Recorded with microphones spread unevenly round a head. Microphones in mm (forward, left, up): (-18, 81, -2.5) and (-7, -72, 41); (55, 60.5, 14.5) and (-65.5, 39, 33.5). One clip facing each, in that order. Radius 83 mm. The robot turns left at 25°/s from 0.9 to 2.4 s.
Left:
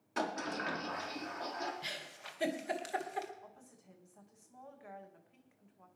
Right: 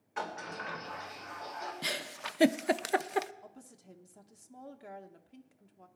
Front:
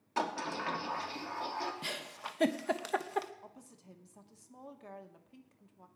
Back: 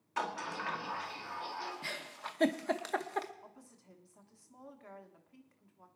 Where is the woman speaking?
40° right, 1.1 m.